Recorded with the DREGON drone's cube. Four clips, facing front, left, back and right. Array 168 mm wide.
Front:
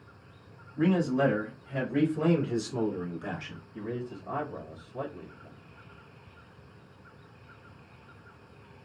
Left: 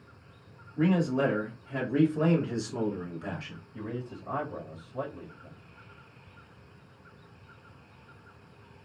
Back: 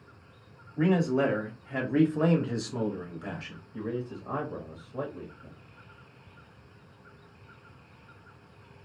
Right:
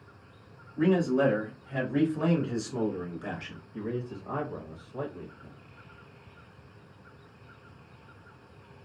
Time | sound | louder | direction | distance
0.8 | a man speaking | right 2 dB, even | 165° left | 1.7 m
3.7 | a man speaking | right 3 dB, back 2 dB | 150° right | 1.0 m